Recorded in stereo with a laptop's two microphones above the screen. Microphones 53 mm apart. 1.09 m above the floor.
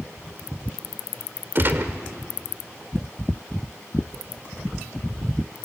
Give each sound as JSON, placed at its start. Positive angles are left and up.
{"t": 1.6, "sound": "a gunshot", "side_deg": -45, "distance_m": 1.7}